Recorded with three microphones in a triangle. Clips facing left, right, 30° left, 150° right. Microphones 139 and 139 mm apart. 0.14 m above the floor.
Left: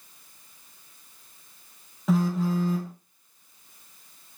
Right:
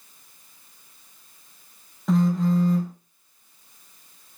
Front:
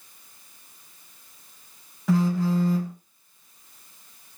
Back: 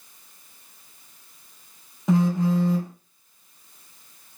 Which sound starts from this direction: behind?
A phone buzzing, at 2.1 s.